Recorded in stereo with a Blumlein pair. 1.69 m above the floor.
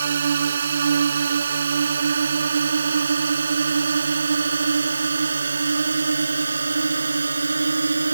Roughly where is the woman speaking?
No woman speaking in this recording.